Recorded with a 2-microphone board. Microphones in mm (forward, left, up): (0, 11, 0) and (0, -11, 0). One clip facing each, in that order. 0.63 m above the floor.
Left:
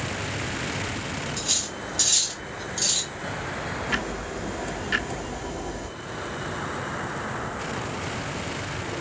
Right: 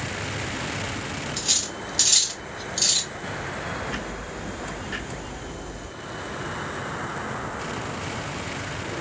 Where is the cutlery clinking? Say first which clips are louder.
Right 4 dB; 30° right (ahead or behind), 1.1 m.